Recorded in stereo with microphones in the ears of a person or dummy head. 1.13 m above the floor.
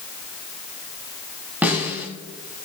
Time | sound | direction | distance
1.6 | a snare drum | 10° right (ahead or behind) | 2.5 m